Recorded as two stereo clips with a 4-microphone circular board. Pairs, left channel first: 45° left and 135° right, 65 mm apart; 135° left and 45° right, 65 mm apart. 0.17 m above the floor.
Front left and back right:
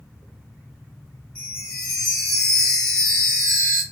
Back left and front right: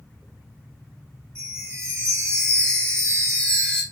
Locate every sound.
1.4 s a chime: 20° right, 2 m